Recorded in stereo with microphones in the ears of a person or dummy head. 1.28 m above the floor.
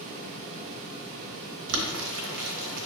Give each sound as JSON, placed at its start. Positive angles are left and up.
{"t": 1.7, "sound": "boiling", "side_deg": -65, "distance_m": 0.8}